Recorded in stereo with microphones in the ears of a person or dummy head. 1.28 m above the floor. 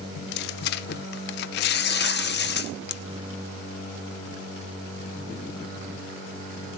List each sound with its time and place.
0.1 s tearing paper: 55° left (ahead or behind), 0.7 m